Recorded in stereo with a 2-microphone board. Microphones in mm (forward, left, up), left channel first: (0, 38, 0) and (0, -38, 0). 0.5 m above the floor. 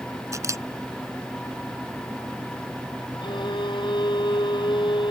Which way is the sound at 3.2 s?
85° left.